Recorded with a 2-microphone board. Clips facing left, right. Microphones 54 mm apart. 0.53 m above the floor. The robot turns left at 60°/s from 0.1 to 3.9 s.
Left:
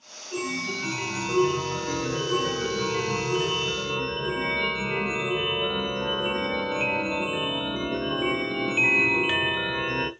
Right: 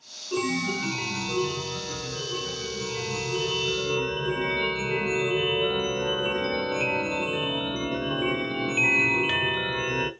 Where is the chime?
140° right, 0.7 m; by 10.1 s 5° left, 0.7 m.